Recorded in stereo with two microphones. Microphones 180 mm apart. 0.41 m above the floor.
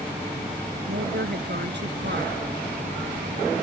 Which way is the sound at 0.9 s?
75° right (ahead or behind).